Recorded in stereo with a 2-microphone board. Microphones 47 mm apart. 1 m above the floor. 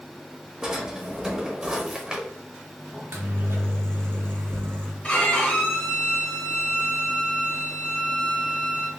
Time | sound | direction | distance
0.6 | a drawer | 15° right (ahead or behind) | 0.8 m
2.9 | a microwave | 50° right (ahead or behind) | 0.9 m
5.0 | a violin | 30° left (ahead or behind) | 1.6 m